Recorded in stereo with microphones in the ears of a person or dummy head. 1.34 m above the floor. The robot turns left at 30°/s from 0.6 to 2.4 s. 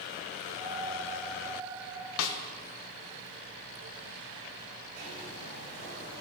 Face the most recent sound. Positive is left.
turn(degrees=-45)  # may be behind; listen again after turning